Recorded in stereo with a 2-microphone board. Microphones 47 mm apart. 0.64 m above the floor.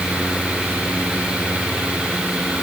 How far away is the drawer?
No drawer in this recording.